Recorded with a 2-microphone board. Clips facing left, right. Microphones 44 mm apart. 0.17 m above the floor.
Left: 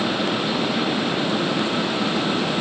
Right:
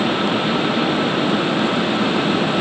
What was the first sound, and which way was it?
Only background noise.